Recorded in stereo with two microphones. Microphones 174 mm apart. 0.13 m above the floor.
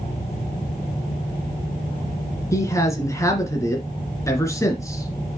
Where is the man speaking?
15° left (ahead or behind), 2.0 m.